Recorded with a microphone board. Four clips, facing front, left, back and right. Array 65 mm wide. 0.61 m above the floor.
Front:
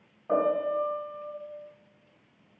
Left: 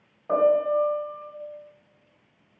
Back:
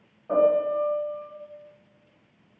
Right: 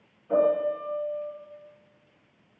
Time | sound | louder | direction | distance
0.3 | a piano | left 3 dB, back 5 dB | 85° left | 2.5 m